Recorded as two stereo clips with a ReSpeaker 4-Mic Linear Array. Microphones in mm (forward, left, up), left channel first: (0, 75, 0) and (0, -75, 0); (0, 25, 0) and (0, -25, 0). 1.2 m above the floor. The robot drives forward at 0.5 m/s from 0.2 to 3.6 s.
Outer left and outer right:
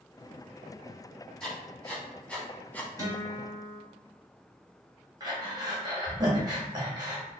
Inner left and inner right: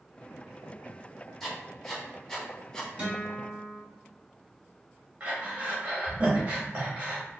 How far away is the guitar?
About 1.9 m.